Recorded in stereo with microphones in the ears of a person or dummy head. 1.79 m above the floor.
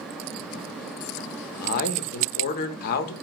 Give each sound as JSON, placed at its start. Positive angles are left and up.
{"t": 1.6, "sound": "a man speaking", "side_deg": 50, "distance_m": 0.5}